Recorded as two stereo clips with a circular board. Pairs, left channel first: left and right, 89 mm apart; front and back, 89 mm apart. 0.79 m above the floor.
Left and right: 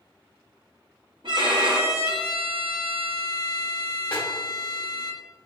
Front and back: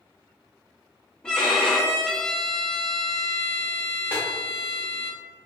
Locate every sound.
1.2 s a violin: 80° right, 0.7 m
4.1 s a snare drum: 115° left, 0.9 m